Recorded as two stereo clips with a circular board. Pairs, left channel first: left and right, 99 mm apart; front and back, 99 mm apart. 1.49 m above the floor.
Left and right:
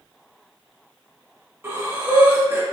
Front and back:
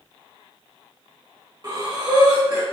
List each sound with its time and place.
1.6 s breathing: 145° right, 1.3 m